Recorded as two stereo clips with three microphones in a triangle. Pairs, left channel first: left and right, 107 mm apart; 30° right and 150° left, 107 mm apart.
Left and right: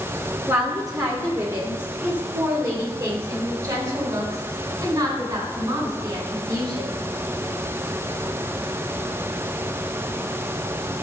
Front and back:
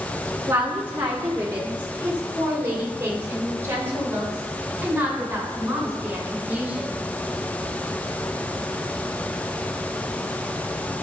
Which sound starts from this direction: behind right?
A woman speaking, at 0.5 s.